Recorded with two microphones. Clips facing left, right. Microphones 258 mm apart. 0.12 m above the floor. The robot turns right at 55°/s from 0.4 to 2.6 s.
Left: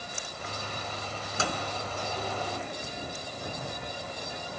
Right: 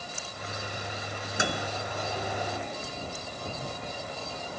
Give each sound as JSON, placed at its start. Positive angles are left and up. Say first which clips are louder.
{"t": 1.4, "sound": "a microwave", "louder": "right 2 dB", "side_deg": -15, "distance_m": 1.1}